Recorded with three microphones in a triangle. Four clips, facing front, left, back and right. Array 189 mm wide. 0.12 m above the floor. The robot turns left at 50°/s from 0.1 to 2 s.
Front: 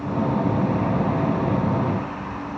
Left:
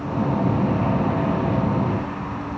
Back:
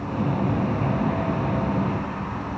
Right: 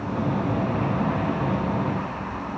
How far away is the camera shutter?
No camera shutter in this recording.